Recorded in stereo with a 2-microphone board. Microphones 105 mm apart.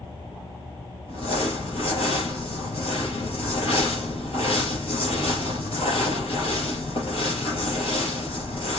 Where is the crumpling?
60° left (ahead or behind), 4.5 m.